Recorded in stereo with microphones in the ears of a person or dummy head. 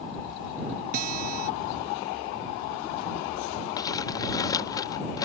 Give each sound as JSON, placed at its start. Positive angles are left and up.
{"t": 0.9, "sound": "a guitar", "side_deg": -50}
{"t": 3.8, "sound": "crumpling", "side_deg": 25}